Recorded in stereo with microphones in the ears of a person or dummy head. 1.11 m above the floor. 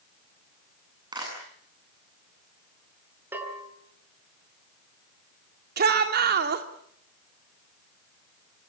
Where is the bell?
10° right (ahead or behind), 5 m.